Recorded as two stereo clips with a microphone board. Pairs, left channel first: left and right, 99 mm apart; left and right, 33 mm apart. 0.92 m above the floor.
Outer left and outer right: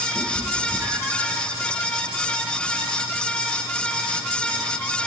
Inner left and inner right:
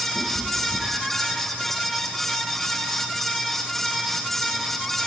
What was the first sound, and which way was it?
A cat meowing, 30° right (ahead or behind).